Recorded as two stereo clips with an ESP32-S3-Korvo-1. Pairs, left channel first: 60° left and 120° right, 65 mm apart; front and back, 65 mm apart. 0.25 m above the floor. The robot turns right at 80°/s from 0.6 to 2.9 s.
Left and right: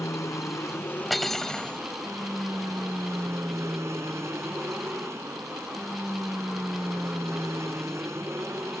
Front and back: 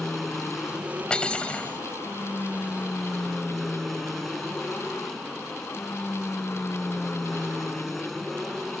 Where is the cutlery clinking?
30° right; by 1.8 s 25° left.